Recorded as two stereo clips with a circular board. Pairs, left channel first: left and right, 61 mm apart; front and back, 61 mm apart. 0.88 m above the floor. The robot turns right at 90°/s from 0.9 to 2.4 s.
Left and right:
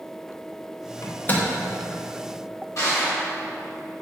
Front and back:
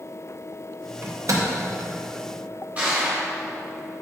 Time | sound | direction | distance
1.0 | a microwave | 125° left | 0.5 m
2.8 | crushing | 120° left | 1.4 m